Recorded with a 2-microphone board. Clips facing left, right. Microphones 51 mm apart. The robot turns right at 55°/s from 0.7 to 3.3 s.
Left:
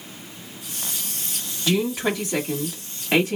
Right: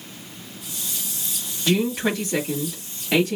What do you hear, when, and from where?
1.7 s a woman speaking: centre (ahead or behind), 1.3 m; by 3.4 s 30° left (ahead or behind), 1.3 m